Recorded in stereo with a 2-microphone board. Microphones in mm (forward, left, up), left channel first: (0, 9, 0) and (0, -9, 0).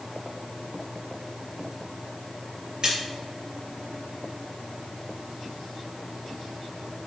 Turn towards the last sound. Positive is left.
turn(degrees=-40)  # may be behind; listen again after turning